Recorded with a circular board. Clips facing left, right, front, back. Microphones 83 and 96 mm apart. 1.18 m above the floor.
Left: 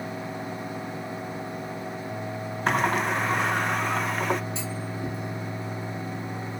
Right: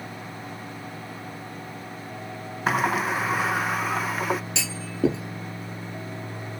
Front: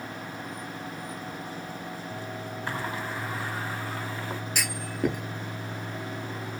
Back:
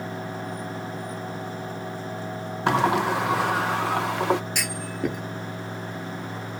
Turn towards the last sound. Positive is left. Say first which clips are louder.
# right 3 dB, back 1 dB
turn(degrees=-90)